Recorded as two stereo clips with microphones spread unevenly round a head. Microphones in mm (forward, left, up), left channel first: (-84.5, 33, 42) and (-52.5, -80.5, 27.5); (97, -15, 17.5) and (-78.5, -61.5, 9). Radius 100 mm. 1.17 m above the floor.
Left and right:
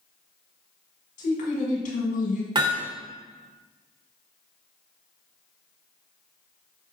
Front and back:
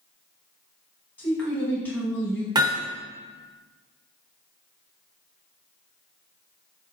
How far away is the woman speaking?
About 2.0 m.